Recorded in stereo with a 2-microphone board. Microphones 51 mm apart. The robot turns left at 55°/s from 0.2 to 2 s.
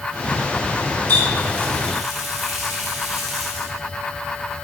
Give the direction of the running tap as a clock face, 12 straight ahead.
10 o'clock.